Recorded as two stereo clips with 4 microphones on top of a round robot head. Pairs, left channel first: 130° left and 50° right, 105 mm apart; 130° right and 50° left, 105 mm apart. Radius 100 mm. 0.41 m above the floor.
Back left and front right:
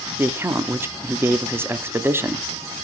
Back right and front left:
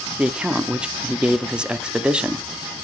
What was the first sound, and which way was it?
A man speaking, 20° right.